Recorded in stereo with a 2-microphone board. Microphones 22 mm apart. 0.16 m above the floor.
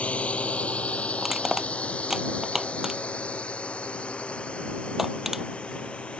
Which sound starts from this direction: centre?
Crushing, at 1.2 s.